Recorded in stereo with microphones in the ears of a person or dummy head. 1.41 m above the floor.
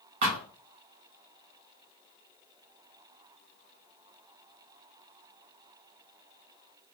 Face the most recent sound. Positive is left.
turn(degrees=-55)  # may be behind; listen again after turning